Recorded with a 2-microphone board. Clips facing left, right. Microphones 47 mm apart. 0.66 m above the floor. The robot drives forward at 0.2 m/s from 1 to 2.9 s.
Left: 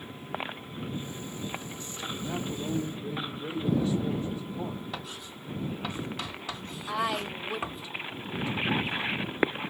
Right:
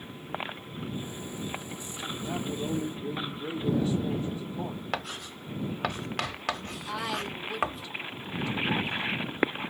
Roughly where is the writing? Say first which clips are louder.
Right 5 dB; right.